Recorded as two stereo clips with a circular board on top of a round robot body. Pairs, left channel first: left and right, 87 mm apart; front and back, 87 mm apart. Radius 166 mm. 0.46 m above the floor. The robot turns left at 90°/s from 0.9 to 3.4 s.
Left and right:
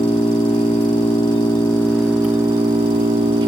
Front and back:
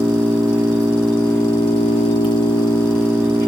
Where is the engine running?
105° left, 2 m; by 3.5 s 120° right, 2 m.